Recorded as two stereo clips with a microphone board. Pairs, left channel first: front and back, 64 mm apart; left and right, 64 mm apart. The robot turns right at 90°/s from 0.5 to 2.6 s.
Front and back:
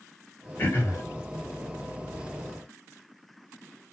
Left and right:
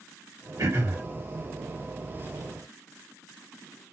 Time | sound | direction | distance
0.6 | throat clearing | 65° right | 2 m